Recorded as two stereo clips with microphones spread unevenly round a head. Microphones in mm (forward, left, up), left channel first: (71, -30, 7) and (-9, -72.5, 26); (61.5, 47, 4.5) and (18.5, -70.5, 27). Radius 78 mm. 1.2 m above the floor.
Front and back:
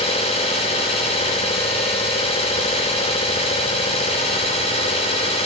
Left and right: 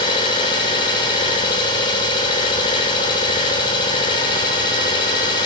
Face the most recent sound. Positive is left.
turn(degrees=15)